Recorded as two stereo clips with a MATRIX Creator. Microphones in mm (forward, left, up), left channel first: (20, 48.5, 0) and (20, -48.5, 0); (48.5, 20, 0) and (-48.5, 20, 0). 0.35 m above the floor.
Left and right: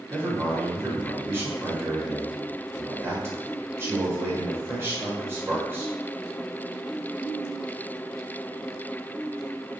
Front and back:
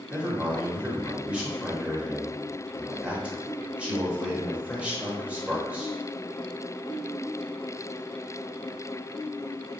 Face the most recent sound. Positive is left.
turn(degrees=-120)